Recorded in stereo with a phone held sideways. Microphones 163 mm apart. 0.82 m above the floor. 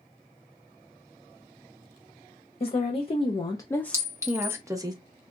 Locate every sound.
2.6 s a woman speaking: 40° left (ahead or behind), 0.8 m; by 4.9 s 25° right (ahead or behind), 0.8 m
3.9 s a clink: 20° right (ahead or behind), 0.9 m